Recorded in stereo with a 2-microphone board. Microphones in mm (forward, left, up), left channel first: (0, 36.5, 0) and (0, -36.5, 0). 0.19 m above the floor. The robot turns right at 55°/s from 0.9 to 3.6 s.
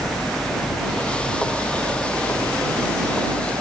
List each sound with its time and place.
0.0 s a helicopter: 5° right (ahead or behind); by 3.6 s 25° right (ahead or behind)